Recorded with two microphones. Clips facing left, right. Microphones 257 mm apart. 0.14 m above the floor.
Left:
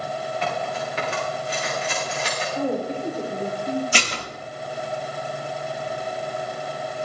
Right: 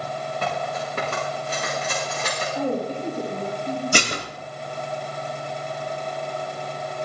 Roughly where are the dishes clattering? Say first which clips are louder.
Right 3 dB; right.